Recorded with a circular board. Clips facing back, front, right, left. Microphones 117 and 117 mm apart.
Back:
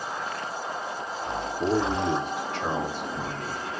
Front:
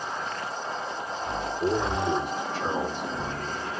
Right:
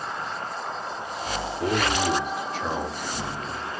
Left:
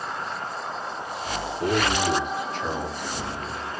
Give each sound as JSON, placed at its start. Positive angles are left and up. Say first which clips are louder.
{"t": 1.6, "sound": "a man speaking", "louder": "back 2 dB, left 1 dB", "azimuth_deg": -175, "distance_m": 4.0}